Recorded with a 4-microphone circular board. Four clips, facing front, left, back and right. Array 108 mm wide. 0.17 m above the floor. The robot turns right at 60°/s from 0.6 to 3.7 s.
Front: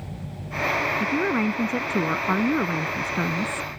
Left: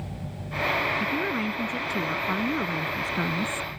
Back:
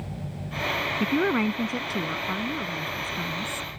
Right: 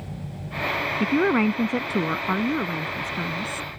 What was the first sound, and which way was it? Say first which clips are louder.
A woman speaking: right 7 dB, back 3 dB; 115° right.